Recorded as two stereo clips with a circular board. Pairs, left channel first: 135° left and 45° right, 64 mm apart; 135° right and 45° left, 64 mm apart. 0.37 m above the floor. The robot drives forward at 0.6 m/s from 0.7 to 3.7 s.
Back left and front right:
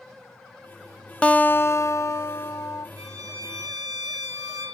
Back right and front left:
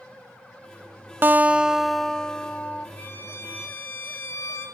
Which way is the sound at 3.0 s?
80° right.